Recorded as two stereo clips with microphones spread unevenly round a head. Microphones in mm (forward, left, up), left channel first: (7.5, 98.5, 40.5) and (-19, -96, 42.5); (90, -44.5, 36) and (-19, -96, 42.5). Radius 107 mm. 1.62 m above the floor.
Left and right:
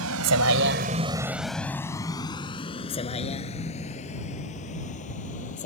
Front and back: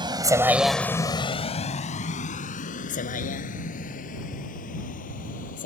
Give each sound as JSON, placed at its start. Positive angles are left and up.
{"t": 0.0, "sound": "a vehicle", "azimuth_deg": -110}